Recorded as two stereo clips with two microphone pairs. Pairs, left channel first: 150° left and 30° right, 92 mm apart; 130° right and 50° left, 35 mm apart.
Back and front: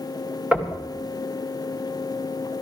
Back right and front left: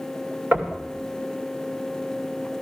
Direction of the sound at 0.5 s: 45° left.